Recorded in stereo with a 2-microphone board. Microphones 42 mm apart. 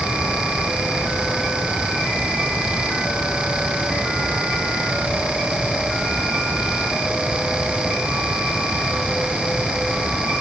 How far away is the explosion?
No explosion in this recording.